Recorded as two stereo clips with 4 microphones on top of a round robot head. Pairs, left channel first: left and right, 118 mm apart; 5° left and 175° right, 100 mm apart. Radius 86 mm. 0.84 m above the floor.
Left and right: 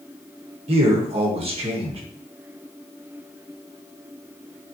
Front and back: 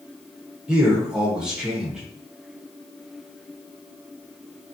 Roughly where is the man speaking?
Right.